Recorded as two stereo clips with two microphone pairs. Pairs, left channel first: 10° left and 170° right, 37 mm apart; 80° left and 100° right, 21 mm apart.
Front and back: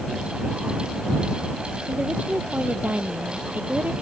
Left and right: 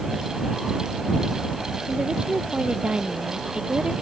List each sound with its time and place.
1.9 s a woman speaking: 130° right